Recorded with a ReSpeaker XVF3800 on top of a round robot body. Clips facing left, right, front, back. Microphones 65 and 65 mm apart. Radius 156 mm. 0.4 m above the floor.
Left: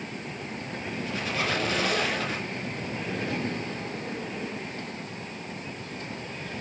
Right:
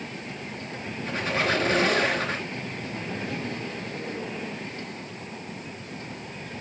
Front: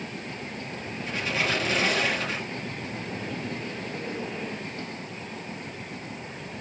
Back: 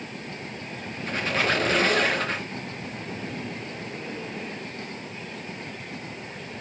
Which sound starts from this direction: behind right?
A squeak, at 1.1 s.